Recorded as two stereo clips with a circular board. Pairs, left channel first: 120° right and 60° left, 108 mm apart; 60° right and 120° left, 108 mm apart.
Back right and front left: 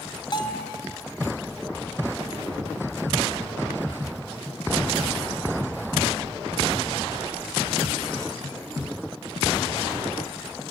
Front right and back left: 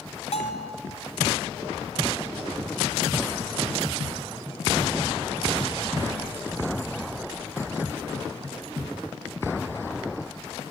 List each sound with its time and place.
0.3 s a bell: 75° right, 2.5 m